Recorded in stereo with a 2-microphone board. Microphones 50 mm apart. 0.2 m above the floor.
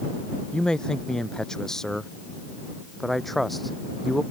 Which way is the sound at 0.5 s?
15° left (ahead or behind).